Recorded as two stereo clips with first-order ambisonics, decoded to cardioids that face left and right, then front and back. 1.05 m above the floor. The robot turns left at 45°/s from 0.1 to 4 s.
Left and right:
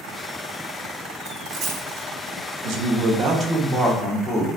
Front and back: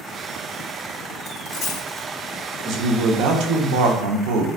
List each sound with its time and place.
1.3 s a dropped coin: 30° right, 1.6 m; by 2.0 s 60° right, 1.6 m
2.6 s a man speaking: 125° right, 1.0 m; by 4.5 s 175° left, 1.0 m